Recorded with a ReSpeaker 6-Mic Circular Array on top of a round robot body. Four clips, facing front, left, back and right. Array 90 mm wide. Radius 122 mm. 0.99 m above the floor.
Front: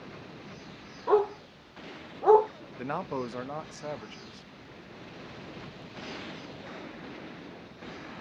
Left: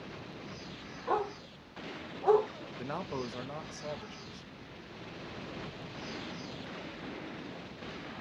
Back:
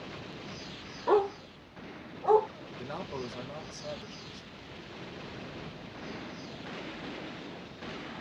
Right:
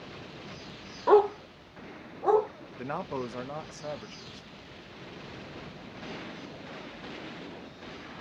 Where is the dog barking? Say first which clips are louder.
Right 12 dB, front 1 dB; 95° right, 0.6 m; by 2.5 s 10° right, 1.3 m.